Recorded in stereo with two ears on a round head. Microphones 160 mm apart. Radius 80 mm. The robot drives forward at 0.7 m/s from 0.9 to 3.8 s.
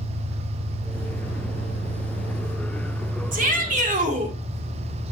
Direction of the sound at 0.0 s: 80° right.